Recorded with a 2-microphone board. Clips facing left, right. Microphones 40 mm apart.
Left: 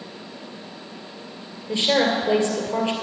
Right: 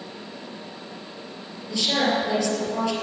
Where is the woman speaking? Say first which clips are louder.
Left 3 dB; 35° left (ahead or behind), 2 m.